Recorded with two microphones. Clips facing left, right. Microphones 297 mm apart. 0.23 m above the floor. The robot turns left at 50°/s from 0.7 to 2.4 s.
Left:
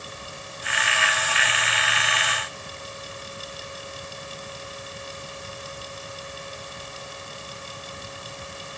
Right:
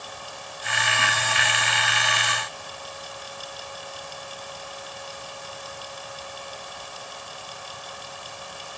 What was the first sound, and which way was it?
Only background noise.